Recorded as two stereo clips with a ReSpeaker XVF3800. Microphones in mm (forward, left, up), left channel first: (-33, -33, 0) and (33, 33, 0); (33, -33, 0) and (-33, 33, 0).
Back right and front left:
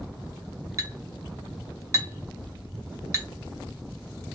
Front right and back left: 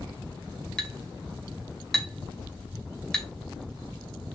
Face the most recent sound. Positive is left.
turn(degrees=35)